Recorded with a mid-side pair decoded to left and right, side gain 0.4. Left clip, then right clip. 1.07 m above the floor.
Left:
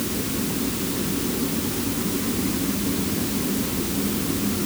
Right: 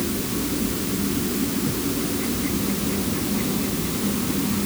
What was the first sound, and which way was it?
Only background noise.